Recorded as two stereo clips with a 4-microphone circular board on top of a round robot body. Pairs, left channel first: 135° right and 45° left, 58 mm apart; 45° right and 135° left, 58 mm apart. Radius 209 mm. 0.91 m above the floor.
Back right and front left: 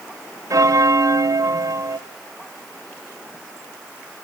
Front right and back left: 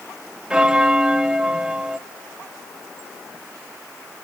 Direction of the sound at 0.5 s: 60° left.